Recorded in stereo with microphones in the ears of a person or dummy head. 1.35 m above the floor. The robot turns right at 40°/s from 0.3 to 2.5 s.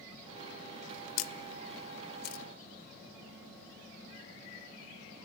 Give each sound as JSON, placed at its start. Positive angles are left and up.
{"t": 1.2, "sound": "a camera shutter", "side_deg": 75, "distance_m": 1.1}